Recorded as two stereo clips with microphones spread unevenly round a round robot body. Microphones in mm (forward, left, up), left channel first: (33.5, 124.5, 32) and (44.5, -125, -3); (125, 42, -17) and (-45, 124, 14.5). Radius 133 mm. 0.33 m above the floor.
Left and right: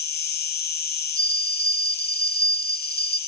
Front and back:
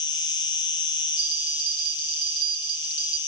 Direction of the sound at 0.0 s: 40° left.